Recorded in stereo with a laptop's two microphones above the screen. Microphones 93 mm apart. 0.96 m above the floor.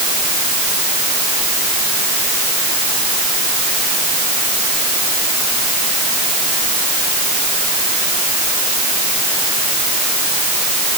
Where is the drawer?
I don't hear a drawer.